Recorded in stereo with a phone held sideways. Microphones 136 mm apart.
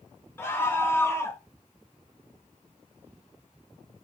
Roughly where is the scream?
Centre.